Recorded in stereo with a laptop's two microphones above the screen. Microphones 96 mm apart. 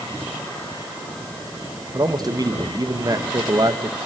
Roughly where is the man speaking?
Right.